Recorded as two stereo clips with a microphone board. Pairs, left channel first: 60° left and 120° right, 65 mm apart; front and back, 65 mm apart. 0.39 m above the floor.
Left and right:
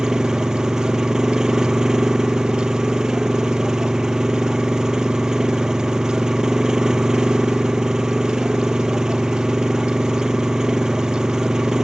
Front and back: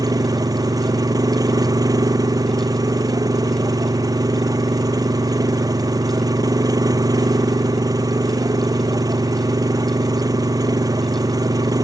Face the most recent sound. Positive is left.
turn(degrees=160)